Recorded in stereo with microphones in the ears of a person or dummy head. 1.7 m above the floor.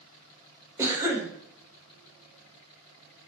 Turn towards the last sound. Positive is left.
turn(degrees=-20)  # may be behind; listen again after turning